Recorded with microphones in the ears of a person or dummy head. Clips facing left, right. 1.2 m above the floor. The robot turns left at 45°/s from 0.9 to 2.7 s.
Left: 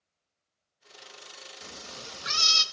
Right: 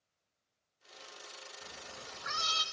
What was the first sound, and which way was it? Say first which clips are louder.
A cat meowing: left 6 dB; 85° left.